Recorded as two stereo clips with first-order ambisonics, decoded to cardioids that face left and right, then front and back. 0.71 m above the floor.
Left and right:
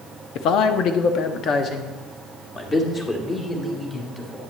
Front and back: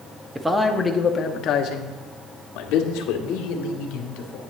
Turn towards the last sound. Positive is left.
turn(degrees=10)